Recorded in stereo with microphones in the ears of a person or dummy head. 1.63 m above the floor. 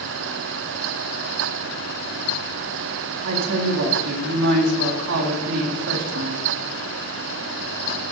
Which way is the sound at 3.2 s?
75° right (ahead or behind).